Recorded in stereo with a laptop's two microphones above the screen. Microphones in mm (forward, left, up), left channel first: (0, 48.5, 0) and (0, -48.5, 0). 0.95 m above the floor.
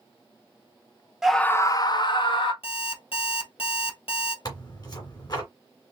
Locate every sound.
1.2 s a scream: 5° right (ahead or behind), 0.6 m; by 2.5 s 55° left (ahead or behind), 1.4 m
2.6 s an alarm clock: 80° left, 2.5 m
4.5 s tearing paper: 45° left (ahead or behind), 2 m